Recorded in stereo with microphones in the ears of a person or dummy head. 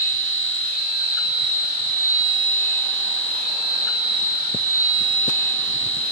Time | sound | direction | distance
0.0 | a machine running | 75° left (ahead or behind) | 5.5 m